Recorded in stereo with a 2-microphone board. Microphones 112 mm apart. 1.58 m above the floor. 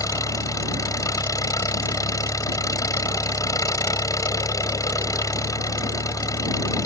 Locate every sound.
0.0 s an engine running: 30° left (ahead or behind)